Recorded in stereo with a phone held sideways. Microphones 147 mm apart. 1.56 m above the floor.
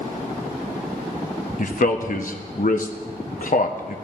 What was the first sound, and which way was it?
A man speaking, 60° left (ahead or behind).